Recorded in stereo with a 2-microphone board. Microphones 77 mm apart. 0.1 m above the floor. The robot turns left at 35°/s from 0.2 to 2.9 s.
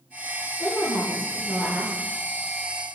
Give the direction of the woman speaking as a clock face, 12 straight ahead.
2 o'clock.